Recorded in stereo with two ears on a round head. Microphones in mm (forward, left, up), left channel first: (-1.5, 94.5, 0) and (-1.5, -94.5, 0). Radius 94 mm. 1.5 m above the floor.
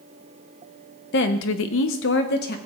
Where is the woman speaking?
55° left (ahead or behind), 0.9 m; by 2.6 s 45° left (ahead or behind), 1.1 m.